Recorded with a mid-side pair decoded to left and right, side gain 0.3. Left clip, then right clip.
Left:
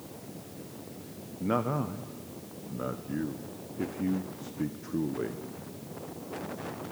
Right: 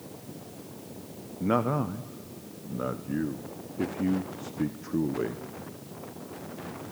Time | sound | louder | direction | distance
1.4 | a man speaking | right 3 dB | 30° right | 0.9 m